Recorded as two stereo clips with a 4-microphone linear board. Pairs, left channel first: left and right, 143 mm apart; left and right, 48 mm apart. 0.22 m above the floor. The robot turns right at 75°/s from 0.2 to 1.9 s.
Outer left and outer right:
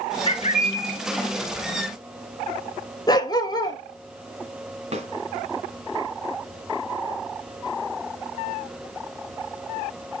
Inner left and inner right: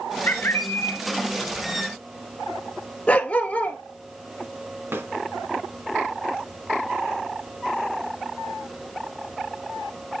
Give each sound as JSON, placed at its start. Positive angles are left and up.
{"t": 0.3, "sound": "a bird", "azimuth_deg": 45, "distance_m": 1.1}
{"t": 3.1, "sound": "a dog barking", "side_deg": 30, "distance_m": 0.8}
{"t": 4.9, "sound": "a snare drum", "side_deg": -50, "distance_m": 2.0}